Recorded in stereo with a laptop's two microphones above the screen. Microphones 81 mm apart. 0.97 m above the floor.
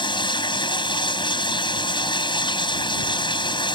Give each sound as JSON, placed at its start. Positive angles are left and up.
{"t": 0.0, "sound": "running water", "side_deg": 85}